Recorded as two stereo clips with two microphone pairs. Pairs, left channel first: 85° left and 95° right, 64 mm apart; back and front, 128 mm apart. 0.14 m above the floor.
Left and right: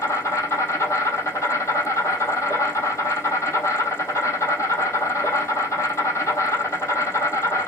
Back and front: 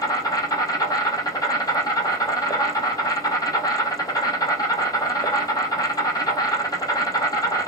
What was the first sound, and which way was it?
An insect, 125° left.